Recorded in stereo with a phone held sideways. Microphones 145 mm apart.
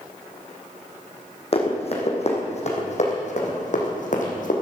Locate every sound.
1.5 s running footsteps: 45° left (ahead or behind), 3 m; by 4.5 s 65° left (ahead or behind), 3 m